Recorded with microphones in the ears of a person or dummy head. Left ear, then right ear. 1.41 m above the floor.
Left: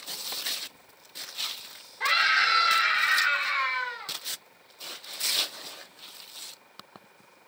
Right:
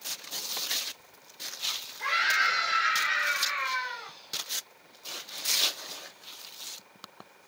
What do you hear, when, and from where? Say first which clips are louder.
2.0 s a scream: left 3 dB; 50° left (ahead or behind), 5 m; by 4.1 s 35° left (ahead or behind), 4.5 m